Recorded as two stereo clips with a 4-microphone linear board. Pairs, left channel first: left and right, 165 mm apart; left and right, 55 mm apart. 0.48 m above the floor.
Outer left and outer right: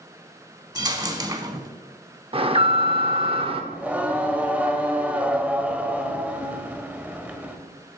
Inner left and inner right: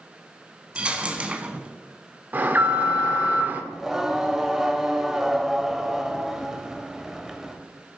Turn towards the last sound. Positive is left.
turn(degrees=-10)  # may be behind; listen again after turning